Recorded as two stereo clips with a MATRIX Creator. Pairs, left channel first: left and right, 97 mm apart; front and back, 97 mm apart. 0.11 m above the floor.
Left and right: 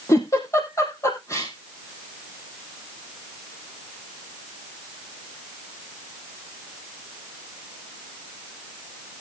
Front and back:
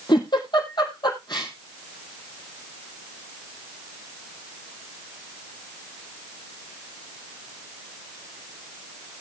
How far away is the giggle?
About 4 m.